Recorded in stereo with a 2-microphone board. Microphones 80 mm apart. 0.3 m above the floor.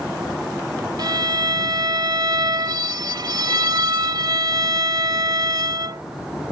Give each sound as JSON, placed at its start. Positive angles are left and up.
{"t": 1.0, "sound": "a violin", "side_deg": -60}